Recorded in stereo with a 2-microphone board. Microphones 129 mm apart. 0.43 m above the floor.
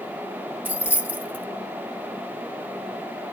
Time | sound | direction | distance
0.7 | keys jangling | 15° right (ahead or behind) | 0.8 m